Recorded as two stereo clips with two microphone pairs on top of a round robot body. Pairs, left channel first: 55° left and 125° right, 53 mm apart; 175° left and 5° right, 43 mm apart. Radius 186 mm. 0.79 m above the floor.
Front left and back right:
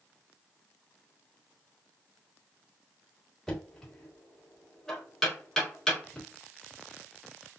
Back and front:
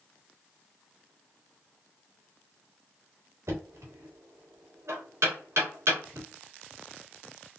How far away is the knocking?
About 1.9 m.